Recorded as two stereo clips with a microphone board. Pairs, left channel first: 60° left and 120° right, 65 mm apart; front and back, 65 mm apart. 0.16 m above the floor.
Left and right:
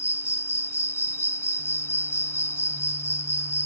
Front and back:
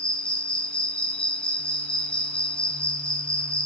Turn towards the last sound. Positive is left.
turn(degrees=60)